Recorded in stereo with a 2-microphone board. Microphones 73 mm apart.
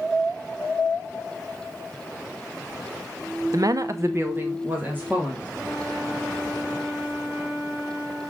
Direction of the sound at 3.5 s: 50° right (ahead or behind).